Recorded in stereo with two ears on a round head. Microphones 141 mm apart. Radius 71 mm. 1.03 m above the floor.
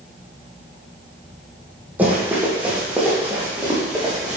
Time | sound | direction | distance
2.0 | running footsteps | 10° right (ahead or behind) | 2.5 m